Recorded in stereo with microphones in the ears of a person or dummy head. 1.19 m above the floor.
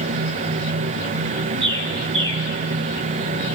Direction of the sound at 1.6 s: 35° right (ahead or behind).